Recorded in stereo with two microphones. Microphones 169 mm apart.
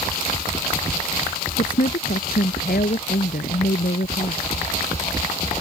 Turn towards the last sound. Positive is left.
turn(degrees=65)  # may be behind; listen again after turning